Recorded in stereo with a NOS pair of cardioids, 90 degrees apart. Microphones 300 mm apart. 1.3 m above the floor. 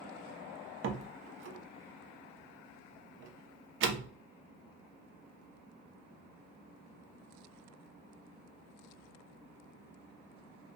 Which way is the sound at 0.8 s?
40° right.